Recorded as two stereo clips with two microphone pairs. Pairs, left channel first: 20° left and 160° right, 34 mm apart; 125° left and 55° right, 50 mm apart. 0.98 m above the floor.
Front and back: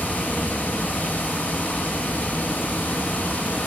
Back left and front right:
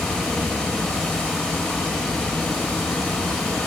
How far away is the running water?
About 0.9 m.